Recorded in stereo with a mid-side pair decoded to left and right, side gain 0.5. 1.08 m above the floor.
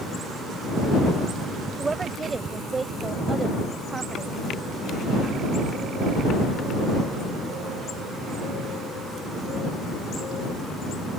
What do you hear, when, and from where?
1.8 s a woman speaking: 25° right